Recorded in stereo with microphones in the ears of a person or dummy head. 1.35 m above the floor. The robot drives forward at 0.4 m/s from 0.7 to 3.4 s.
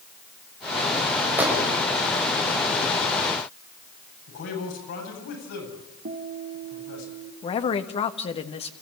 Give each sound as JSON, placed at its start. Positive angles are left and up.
{"t": 1.4, "sound": "a gunshot", "side_deg": -10, "distance_m": 7.0}
{"t": 4.3, "sound": "a man speaking", "side_deg": 60, "distance_m": 10.0}
{"t": 6.0, "sound": "a guitar", "side_deg": -50, "distance_m": 2.0}
{"t": 7.4, "sound": "a man speaking", "side_deg": 30, "distance_m": 1.6}